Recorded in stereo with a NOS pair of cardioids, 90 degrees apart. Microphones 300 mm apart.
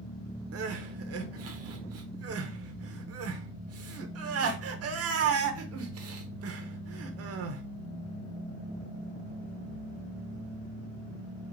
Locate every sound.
0.5 s crying: 55° right, 0.8 m